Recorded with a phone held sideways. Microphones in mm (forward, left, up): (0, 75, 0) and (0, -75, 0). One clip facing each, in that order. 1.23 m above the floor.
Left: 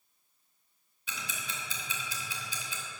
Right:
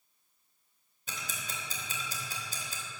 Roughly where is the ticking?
Right.